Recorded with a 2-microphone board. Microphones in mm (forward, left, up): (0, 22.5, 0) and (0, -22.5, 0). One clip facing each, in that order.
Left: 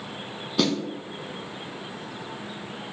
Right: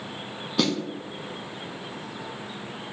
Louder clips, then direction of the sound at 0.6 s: Left 1 dB; 5° right (ahead or behind).